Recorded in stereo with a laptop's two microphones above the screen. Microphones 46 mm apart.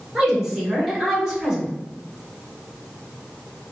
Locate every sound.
0.1 s a woman speaking: 15° right (ahead or behind), 1.1 m